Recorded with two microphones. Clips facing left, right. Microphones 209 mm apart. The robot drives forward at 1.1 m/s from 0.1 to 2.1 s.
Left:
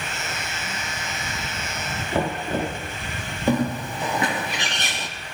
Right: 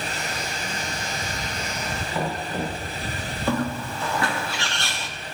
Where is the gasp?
No gasp in this recording.